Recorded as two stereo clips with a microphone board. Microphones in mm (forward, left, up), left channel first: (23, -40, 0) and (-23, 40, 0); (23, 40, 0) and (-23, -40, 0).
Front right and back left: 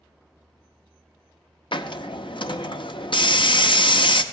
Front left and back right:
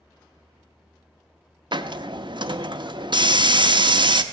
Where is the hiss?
90° right, 0.7 m.